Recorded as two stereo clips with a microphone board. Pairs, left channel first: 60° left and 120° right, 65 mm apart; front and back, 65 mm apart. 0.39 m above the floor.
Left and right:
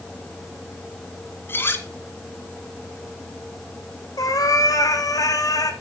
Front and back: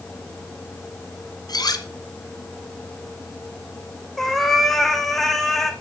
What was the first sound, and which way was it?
Cutlery clinking, straight ahead.